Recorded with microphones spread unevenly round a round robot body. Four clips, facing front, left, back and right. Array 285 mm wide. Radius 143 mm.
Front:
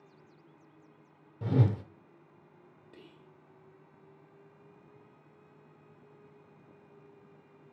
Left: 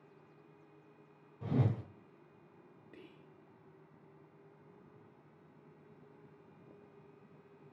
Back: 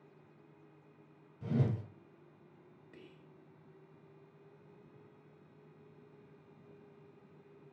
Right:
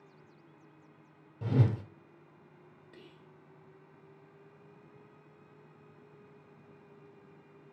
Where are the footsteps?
I don't hear footsteps.